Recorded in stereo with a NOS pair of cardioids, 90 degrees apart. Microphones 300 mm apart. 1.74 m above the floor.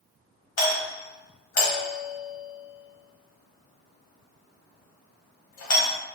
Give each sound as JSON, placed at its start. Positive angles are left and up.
{"t": 0.6, "sound": "a doorbell", "azimuth_deg": 60, "distance_m": 1.6}